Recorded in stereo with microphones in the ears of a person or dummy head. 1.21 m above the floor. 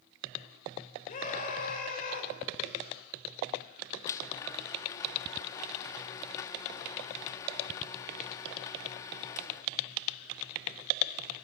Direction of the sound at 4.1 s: 20° left (ahead or behind).